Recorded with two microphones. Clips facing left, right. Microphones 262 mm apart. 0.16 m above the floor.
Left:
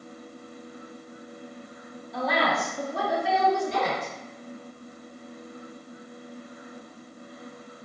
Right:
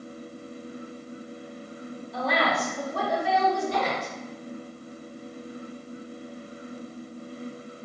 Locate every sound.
2.1 s a woman speaking: centre (ahead or behind), 1.3 m; by 4.1 s 40° left (ahead or behind), 1.6 m